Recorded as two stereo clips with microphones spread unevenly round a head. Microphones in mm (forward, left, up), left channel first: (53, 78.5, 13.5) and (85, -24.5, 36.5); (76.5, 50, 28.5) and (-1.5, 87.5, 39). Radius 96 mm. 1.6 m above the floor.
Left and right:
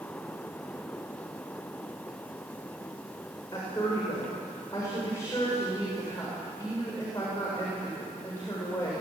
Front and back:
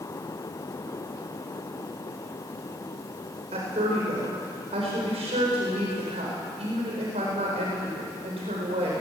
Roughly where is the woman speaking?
Behind.